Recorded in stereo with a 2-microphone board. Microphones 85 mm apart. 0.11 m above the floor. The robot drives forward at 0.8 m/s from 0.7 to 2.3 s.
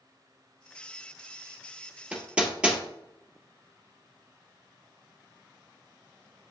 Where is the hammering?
15° right (ahead or behind), 1.1 m.